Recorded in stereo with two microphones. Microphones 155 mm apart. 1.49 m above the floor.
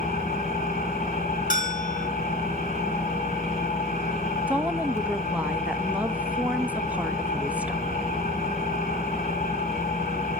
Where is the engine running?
50° left (ahead or behind), 3.5 m.